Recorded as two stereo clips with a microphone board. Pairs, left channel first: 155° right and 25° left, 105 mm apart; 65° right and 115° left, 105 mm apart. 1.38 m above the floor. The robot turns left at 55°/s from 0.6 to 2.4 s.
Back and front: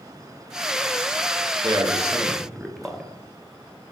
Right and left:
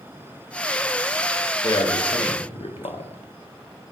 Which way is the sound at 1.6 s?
20° right.